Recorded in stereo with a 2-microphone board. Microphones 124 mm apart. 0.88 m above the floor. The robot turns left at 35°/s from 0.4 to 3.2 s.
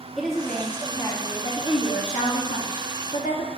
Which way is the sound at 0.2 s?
Straight behind.